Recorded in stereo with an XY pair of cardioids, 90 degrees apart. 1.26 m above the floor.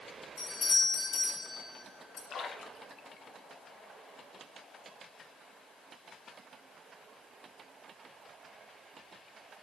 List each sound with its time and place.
0.4 s a doorbell: 60° left, 4 m
2.3 s a splash: 65° left, 1.1 m